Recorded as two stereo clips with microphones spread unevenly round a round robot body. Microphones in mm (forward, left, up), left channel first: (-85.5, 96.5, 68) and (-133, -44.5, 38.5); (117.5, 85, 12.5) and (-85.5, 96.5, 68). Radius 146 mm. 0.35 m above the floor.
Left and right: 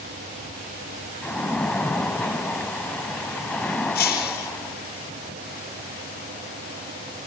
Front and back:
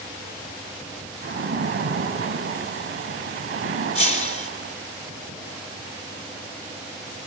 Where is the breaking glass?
55° left, 6.5 m.